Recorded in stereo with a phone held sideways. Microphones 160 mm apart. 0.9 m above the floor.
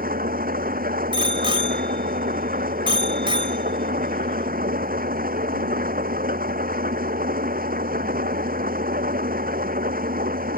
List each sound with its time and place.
0.0 s an engine running: 65° right (ahead or behind)
1.1 s a bicycle bell: 35° right (ahead or behind)